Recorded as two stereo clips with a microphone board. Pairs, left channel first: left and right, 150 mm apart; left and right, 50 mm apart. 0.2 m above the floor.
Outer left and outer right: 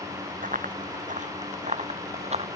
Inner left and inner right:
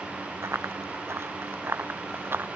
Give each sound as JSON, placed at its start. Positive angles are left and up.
{"t": 0.4, "sound": "running footsteps", "side_deg": -60}